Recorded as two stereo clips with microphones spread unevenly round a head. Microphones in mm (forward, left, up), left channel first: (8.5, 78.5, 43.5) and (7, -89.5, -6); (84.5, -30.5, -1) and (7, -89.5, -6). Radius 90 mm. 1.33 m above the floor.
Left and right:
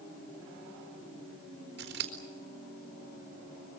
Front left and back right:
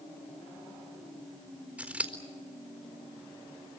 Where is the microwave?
No microwave in this recording.